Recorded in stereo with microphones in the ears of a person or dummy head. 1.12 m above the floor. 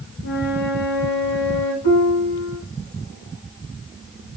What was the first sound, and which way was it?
A flute, 70° left (ahead or behind).